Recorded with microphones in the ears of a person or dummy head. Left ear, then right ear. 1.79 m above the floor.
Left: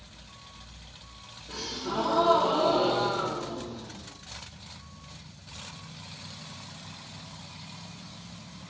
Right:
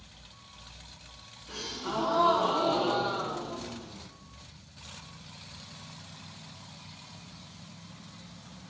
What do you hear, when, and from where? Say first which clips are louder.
1.5 s a gasp: left 1 dB; 20° right (ahead or behind), 0.9 m